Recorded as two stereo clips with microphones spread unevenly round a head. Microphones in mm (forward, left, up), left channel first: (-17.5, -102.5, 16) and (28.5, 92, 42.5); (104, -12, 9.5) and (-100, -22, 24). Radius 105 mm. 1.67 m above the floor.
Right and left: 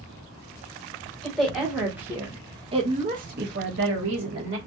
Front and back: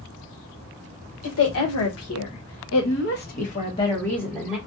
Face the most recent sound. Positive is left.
turn(degrees=100)